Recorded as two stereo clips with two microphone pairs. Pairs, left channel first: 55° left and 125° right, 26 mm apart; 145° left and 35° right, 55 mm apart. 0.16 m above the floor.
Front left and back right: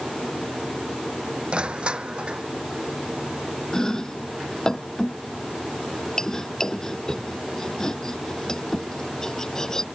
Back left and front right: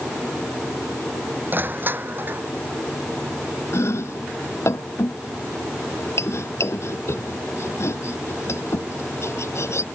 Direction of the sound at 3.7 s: 120° left.